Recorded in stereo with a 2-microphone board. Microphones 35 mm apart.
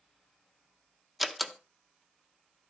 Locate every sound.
1.2 s a door slam: centre (ahead or behind), 1.0 m